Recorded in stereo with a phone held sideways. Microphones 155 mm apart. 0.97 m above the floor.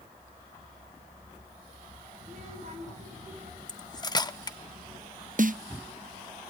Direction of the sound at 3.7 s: 25° left (ahead or behind).